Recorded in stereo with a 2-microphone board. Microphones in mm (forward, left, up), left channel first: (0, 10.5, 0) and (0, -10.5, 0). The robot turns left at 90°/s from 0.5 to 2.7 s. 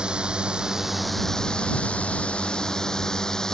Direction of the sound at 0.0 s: 140° right.